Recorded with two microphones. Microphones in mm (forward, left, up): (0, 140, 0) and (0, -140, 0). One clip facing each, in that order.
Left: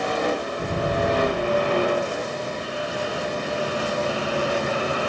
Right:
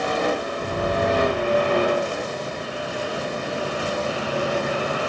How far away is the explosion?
About 4 m.